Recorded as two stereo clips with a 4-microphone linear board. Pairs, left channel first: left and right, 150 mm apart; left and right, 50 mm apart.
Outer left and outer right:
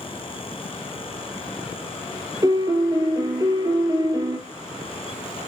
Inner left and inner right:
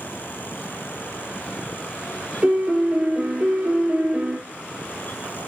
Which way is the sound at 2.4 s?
25° right (ahead or behind).